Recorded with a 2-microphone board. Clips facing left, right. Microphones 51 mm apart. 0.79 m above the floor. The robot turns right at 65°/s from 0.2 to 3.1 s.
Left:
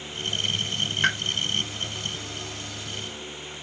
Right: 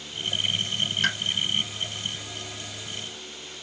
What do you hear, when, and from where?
1.0 s a pop: 20° left (ahead or behind), 1.0 m